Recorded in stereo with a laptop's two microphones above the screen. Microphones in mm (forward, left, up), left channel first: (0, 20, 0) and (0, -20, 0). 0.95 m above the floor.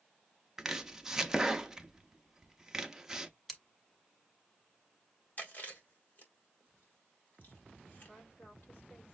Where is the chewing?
50° left (ahead or behind), 2.0 m.